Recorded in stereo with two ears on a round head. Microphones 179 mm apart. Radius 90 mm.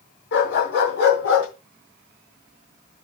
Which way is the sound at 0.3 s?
65° left (ahead or behind).